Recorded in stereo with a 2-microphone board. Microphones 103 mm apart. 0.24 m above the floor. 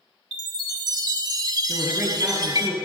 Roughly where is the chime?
Right.